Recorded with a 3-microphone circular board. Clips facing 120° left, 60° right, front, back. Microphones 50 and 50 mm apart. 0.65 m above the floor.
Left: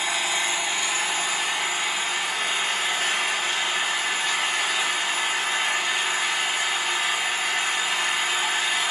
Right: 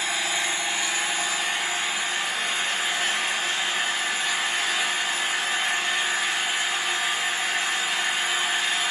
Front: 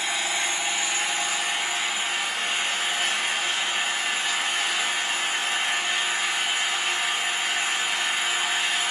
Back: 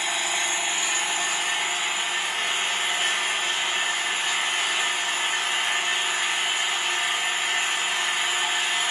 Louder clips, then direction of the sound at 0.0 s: Left 1 dB, even; 140° left.